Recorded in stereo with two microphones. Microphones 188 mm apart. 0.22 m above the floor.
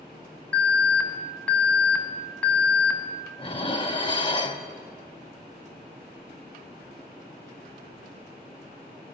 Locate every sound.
0.5 s an alarm: 10° left (ahead or behind), 0.9 m
3.4 s dishes clattering: 30° left (ahead or behind), 0.7 m